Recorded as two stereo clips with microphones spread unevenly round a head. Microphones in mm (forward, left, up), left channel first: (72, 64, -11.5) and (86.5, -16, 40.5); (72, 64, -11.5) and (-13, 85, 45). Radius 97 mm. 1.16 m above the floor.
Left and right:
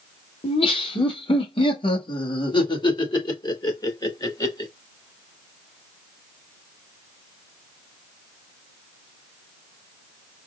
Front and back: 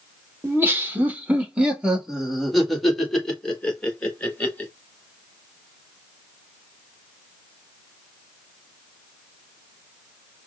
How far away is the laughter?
About 2 m.